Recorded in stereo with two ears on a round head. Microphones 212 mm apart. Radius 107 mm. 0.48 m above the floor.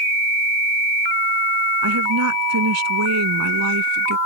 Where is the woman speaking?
80° right; by 4.2 s 75° right (ahead or behind).